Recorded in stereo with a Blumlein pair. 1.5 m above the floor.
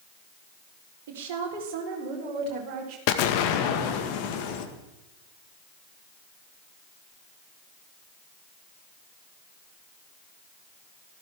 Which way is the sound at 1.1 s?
50° right.